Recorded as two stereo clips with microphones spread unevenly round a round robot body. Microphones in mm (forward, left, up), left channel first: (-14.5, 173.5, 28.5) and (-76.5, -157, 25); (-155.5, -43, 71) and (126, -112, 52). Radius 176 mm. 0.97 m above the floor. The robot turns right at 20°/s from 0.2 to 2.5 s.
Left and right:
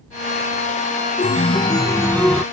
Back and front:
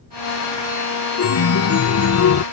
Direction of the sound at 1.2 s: 145° left.